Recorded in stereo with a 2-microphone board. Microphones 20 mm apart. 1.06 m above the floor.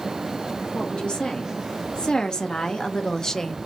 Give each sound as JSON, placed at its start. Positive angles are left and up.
{"t": 0.7, "sound": "a woman speaking", "side_deg": 60, "distance_m": 2.0}